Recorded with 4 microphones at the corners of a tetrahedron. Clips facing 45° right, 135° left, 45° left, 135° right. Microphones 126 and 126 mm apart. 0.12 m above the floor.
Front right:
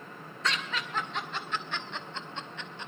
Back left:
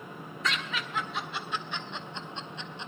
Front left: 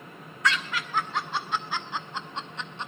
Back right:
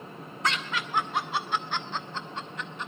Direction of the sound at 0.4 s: 140° right.